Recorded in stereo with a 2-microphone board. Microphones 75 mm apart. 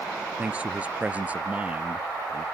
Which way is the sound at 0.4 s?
20° right (ahead or behind).